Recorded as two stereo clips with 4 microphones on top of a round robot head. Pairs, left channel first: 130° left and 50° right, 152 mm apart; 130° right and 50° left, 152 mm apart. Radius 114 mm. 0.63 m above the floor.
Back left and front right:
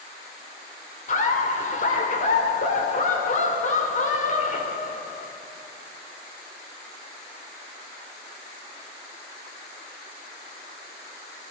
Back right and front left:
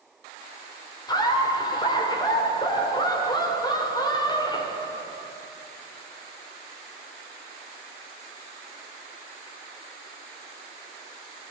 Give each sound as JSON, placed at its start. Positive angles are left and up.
{"t": 1.1, "sound": "laughter", "azimuth_deg": 165, "distance_m": 2.5}